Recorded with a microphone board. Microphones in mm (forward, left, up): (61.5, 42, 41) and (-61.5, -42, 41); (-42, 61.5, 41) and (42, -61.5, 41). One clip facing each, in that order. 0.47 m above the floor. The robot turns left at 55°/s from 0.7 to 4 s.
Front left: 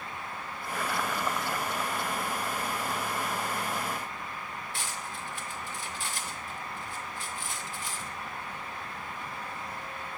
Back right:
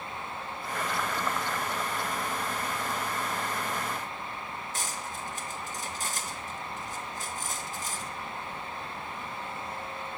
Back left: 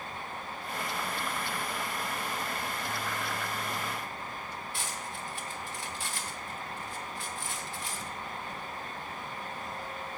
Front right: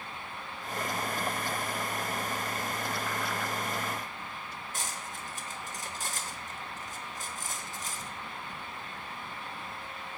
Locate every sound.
4.7 s cutlery clinking: 100° right, 0.8 m